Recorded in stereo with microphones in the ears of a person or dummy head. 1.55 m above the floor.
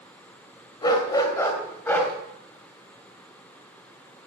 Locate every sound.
0.8 s a dog barking: 25° left (ahead or behind), 3 m; by 2.1 s 10° left (ahead or behind), 3.5 m